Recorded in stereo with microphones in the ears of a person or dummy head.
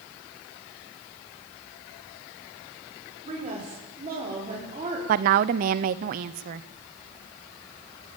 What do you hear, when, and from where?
3.2 s a woman speaking: 35° right (ahead or behind), 5.5 m
5.1 s a woman speaking: 45° right (ahead or behind), 0.7 m